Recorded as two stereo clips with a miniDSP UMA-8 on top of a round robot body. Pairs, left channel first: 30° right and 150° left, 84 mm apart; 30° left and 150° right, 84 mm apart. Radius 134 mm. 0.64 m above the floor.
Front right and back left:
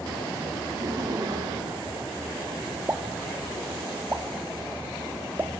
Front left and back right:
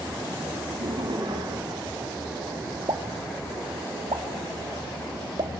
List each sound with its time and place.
0.7 s laughter: 160° right, 2 m; by 2.9 s 165° left, 2.5 m
2.9 s a pop: 150° right, 2.0 m